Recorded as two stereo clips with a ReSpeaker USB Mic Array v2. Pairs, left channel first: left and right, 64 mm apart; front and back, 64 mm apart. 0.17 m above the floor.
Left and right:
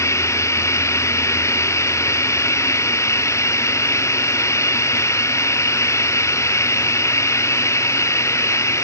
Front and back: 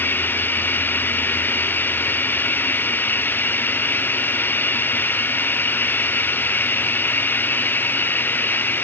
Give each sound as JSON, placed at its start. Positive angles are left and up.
{"t": 0.0, "sound": "running water", "azimuth_deg": 55}